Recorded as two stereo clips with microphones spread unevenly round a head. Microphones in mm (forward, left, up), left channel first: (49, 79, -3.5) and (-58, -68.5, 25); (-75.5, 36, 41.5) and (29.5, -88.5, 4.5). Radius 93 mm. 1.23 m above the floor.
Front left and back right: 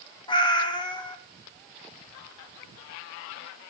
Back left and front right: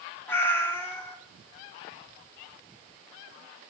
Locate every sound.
0.3 s a cat meowing: 110° left, 0.6 m